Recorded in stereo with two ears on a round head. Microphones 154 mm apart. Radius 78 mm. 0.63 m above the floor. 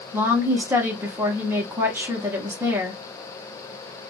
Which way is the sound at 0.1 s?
15° right (ahead or behind).